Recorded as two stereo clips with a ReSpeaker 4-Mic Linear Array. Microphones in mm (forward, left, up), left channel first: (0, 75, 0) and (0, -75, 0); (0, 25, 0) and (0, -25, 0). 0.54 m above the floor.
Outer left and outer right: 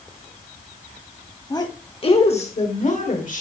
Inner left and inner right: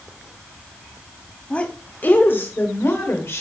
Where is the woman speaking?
25° left (ahead or behind), 1.1 m; by 3.4 s 60° left (ahead or behind), 1.7 m.